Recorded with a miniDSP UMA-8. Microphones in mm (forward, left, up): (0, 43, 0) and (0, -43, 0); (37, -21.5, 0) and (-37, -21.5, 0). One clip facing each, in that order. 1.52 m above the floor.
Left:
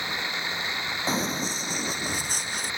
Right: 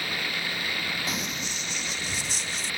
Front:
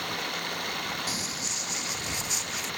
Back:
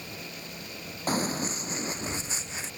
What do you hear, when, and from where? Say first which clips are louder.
0.0 s running water: left 1 dB, front 9 dB; 20° left
1.1 s running footsteps: left 5 dB, back 7 dB; 140° left; by 2.7 s 125° left